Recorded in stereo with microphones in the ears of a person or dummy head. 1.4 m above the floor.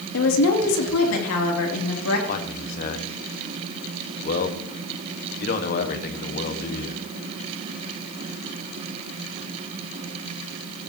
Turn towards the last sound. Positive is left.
turn(degrees=50)  # may be behind; listen again after turning